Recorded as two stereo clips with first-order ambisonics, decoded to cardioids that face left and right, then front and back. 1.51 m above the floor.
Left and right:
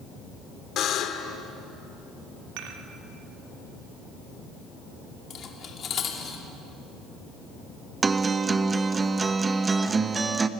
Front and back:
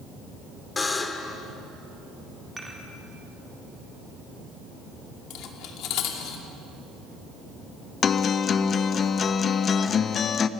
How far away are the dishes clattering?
About 2 m.